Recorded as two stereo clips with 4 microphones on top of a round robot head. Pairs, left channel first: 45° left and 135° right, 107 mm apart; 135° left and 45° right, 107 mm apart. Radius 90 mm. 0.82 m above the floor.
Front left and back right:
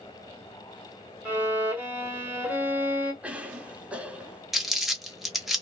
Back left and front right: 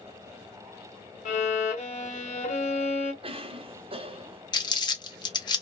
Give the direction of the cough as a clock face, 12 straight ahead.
2 o'clock.